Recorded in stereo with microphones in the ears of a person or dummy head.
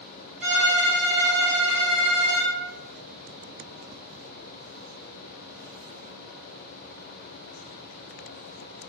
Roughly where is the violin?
Centre.